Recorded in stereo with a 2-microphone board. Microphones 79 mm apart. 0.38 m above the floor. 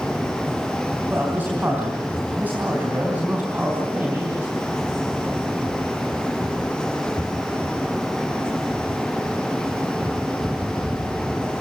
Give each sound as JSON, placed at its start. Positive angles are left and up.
{"t": 1.1, "sound": "a man speaking", "side_deg": -25, "distance_m": 3.5}